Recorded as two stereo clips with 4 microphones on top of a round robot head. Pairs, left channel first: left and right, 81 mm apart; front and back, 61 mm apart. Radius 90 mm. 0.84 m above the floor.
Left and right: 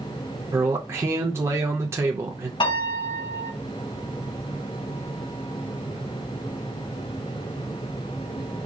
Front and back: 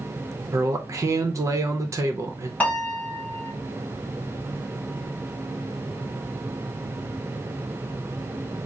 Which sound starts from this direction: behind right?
A man speaking, at 0.5 s.